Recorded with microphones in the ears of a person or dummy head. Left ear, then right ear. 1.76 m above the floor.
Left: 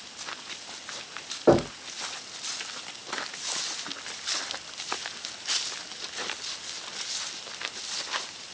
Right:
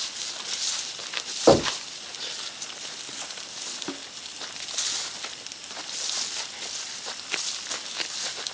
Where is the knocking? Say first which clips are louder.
Right 3 dB; 20° right (ahead or behind), 1.0 m.